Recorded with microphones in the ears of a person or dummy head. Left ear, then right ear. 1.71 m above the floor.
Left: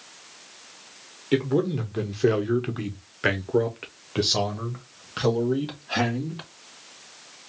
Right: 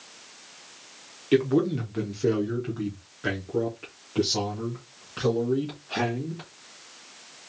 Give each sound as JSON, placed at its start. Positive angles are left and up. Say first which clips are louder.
{"t": 1.3, "sound": "a man speaking", "louder": "right 1 dB", "side_deg": 0, "distance_m": 0.9}